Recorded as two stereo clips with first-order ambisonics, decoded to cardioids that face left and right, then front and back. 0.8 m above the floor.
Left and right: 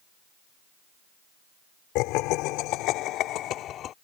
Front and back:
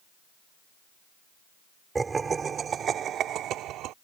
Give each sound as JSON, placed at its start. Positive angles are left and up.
{"t": 1.9, "sound": "laughter", "azimuth_deg": 105}